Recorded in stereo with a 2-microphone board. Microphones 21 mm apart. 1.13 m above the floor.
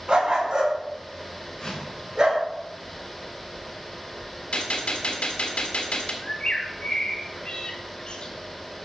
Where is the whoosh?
30° left (ahead or behind), 6 m.